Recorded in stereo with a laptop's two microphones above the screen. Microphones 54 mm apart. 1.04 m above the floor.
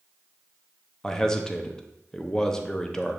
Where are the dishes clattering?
I don't hear dishes clattering.